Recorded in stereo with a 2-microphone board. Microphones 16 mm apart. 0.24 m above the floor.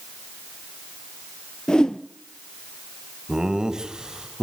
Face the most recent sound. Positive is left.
turn(degrees=-45)  # may be behind; listen again after turning